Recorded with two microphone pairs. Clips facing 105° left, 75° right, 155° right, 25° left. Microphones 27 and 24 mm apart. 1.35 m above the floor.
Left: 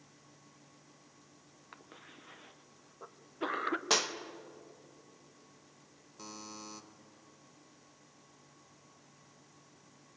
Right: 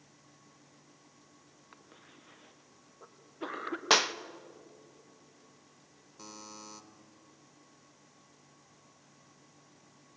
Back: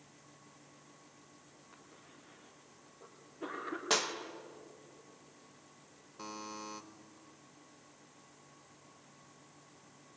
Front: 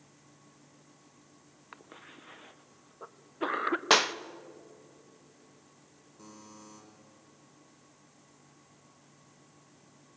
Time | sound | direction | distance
1.7 | a cough | 30° left | 1.2 m
3.9 | a clap | 25° right | 0.8 m
6.2 | a buzzer | 170° right | 1.7 m